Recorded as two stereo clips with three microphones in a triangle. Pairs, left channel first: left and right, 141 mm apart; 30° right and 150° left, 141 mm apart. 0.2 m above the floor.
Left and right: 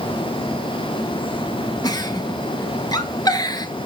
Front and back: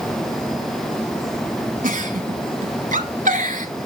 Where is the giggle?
150° left, 0.7 m.